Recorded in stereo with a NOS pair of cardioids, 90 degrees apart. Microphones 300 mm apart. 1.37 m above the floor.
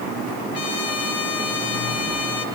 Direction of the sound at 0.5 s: 55° left.